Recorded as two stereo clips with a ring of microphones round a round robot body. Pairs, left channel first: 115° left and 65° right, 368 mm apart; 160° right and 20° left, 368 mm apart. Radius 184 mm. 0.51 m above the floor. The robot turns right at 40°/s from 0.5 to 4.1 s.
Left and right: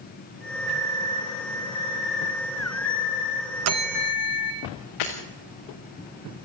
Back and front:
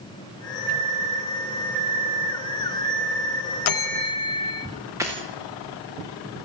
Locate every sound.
0.7 s a microwave: 10° right, 1.6 m; by 4.6 s 125° left, 1.6 m
3.6 s a bell: 120° right, 0.8 m; by 4.7 s 105° right, 0.8 m
5.0 s breaking glass: 105° left, 4.5 m